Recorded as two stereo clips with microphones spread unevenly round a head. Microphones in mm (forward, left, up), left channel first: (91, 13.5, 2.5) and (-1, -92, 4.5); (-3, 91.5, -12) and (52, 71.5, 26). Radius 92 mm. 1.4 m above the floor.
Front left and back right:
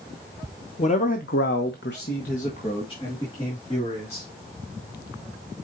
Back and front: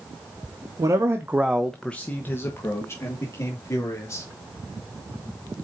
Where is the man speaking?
5° left, 1.0 m; by 4.2 s 125° left, 3.5 m.